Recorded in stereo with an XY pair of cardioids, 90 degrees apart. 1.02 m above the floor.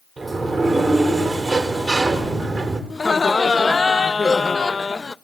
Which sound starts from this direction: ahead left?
Laughter, at 2.9 s.